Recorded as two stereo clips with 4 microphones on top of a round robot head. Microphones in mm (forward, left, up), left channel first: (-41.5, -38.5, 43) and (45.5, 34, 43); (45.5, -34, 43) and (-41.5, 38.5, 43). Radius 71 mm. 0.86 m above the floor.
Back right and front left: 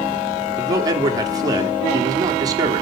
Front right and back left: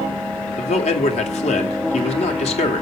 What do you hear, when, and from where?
0.6 s a man speaking: 15° right, 2.5 m